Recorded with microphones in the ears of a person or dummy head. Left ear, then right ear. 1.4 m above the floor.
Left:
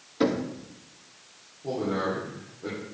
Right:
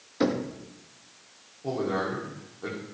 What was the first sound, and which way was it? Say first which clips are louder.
Knocking: left 1 dB; 5° right (ahead or behind).